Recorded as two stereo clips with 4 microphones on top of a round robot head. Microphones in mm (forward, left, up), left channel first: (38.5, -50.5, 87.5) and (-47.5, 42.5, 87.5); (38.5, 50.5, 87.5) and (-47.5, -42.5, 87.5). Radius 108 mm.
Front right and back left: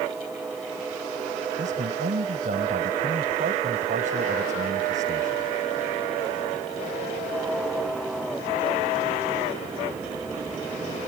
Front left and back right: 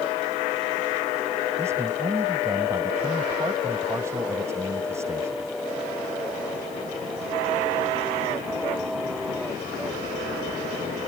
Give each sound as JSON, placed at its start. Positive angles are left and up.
{"t": 1.6, "sound": "a man speaking", "azimuth_deg": 160}